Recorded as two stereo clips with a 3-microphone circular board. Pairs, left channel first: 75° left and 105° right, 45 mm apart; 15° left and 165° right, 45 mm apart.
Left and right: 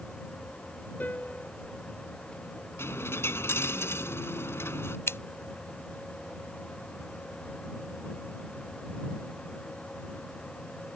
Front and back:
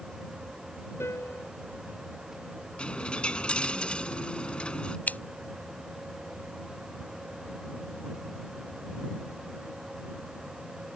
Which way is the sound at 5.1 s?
65° left.